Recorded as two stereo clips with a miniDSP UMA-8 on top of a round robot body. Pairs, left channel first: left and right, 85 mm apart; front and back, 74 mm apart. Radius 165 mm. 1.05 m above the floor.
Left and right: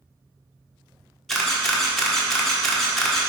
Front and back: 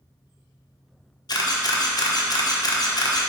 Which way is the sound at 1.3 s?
Straight ahead.